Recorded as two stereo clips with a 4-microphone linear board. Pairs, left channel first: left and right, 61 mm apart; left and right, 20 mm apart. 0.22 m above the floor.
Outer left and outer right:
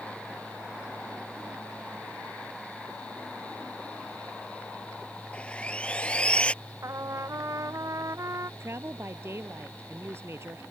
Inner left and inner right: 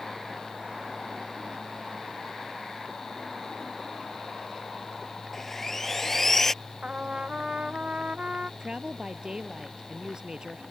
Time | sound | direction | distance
5.3 | sawing | 20° left (ahead or behind) | ?
6.8 | a trumpet | 60° right (ahead or behind) | ?
8.6 | a woman speaking | 45° right (ahead or behind) | ?